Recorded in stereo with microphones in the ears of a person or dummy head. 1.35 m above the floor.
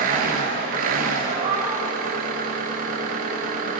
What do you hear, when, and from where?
0.0 s an engine running: 55° right (ahead or behind), 0.9 m
1.3 s a cat meowing: 45° right (ahead or behind), 2 m